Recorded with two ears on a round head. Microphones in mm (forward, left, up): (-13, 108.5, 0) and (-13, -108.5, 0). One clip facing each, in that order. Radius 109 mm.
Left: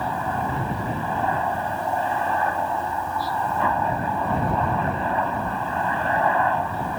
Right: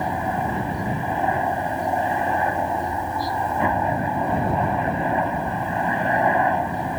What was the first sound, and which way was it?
A helicopter, 15° right (ahead or behind).